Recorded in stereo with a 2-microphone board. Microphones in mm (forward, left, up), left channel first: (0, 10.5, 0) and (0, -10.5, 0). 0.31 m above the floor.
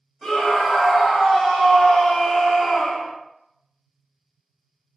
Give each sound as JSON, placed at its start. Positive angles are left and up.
{"t": 0.2, "sound": "a scream", "side_deg": 0, "distance_m": 2.0}